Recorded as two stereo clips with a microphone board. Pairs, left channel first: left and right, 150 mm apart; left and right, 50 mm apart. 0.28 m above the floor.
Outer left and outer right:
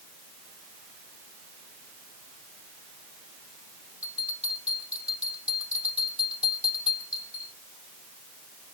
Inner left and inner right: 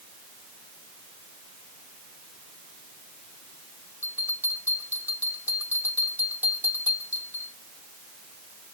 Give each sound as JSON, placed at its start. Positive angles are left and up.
{"t": 4.0, "sound": "a bell", "side_deg": -45, "distance_m": 9.0}